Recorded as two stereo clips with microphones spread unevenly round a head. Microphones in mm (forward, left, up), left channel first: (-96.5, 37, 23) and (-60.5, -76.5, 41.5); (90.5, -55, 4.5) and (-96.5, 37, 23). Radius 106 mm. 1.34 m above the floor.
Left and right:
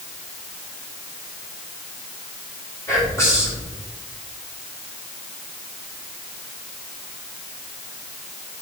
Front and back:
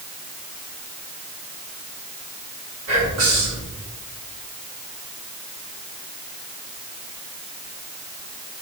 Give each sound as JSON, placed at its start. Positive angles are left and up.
{"t": 2.9, "sound": "whispering", "azimuth_deg": 175, "distance_m": 3.5}